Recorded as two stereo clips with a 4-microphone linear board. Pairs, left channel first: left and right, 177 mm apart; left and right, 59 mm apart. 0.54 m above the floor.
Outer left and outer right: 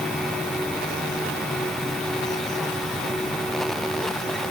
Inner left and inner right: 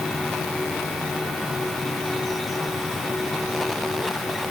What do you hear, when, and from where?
Only background noise.